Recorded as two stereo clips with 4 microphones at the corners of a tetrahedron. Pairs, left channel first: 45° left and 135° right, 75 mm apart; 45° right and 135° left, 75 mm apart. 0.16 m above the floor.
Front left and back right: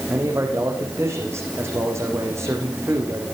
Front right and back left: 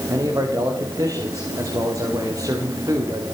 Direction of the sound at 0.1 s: 175° left.